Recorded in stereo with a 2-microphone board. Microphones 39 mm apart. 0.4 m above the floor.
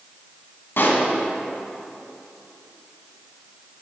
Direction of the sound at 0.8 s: 65° left (ahead or behind).